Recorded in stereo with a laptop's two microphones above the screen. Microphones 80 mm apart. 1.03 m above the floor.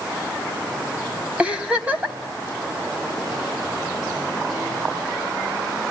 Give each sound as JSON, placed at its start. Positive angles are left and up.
{"t": 1.4, "sound": "a giggle", "side_deg": -15, "distance_m": 1.2}